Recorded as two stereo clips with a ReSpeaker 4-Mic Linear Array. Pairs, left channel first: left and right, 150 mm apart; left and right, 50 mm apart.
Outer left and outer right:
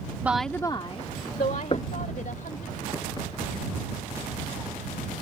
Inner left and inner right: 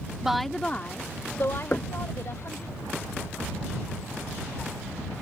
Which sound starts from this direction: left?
Knocking, at 1.7 s.